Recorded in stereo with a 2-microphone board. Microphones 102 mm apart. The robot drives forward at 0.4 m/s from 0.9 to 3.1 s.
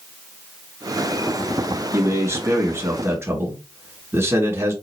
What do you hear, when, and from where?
1.9 s a man speaking: 30° right (ahead or behind), 1.8 m; by 4.7 s 25° right (ahead or behind), 2 m